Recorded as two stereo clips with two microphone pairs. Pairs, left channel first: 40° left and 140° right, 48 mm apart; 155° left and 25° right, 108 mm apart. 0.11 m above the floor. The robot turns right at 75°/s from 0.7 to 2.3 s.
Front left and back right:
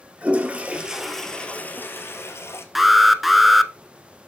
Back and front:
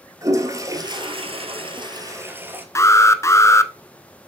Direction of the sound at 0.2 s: 80° right.